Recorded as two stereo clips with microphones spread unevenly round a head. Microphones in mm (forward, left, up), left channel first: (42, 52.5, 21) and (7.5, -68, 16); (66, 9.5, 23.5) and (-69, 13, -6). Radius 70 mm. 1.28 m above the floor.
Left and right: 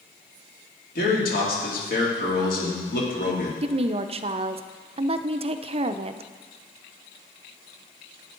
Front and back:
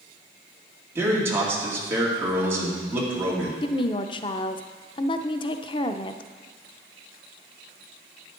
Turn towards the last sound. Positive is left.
turn(degrees=-60)